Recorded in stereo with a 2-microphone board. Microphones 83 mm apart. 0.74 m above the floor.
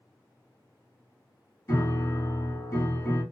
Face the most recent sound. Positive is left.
turn(degrees=35)  # may be behind; listen again after turning